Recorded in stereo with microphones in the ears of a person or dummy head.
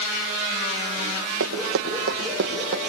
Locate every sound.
1.4 s running footsteps: 65° right (ahead or behind), 3.5 m; by 2.8 s 55° right (ahead or behind), 3 m